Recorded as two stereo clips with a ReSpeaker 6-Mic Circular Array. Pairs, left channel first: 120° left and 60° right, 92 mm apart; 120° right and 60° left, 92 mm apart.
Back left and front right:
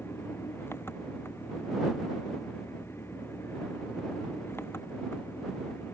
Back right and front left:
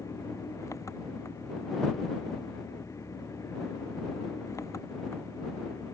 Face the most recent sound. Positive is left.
turn(degrees=-175)